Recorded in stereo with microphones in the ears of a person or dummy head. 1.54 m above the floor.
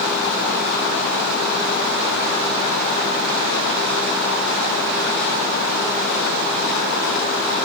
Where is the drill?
No drill in this recording.